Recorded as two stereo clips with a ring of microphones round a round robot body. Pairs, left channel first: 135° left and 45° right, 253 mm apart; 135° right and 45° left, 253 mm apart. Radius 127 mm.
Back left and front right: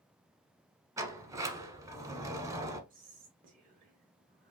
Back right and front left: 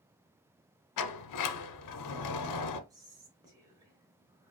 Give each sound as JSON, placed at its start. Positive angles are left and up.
{"t": 1.0, "sound": "a sliding door", "azimuth_deg": -125, "distance_m": 0.8}
{"t": 2.9, "sound": "whispering", "azimuth_deg": -20, "distance_m": 1.0}